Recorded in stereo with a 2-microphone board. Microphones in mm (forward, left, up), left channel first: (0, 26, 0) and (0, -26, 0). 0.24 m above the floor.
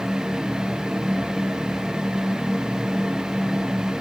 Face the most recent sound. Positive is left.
No sound to turn to.